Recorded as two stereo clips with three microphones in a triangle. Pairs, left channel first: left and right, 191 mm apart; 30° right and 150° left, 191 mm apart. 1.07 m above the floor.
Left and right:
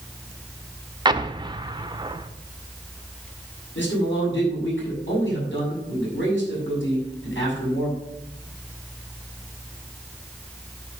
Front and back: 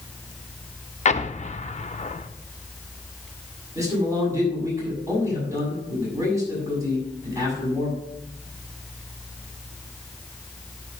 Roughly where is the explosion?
Ahead right.